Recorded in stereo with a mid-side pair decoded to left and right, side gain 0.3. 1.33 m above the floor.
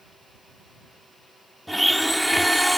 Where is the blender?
Straight ahead.